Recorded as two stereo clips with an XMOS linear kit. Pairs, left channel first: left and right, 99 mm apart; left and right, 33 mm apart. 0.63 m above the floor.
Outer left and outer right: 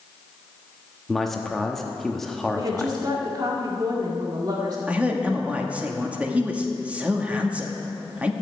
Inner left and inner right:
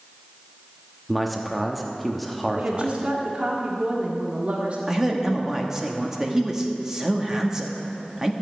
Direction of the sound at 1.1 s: 5° left (ahead or behind).